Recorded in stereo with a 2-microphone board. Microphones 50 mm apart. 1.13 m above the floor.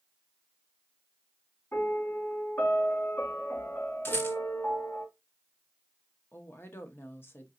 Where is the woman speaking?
45° left (ahead or behind), 0.8 m.